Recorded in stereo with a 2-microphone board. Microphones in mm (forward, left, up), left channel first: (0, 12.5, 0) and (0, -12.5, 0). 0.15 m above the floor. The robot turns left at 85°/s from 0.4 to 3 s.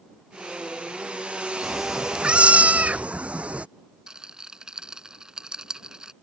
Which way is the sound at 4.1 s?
35° right (ahead or behind).